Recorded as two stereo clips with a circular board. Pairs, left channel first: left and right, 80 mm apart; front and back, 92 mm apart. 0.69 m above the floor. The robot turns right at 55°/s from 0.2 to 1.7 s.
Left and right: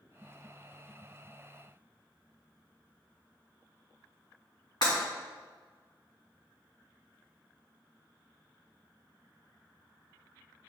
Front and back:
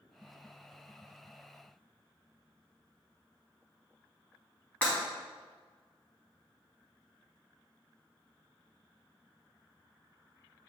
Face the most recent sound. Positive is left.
turn(degrees=75)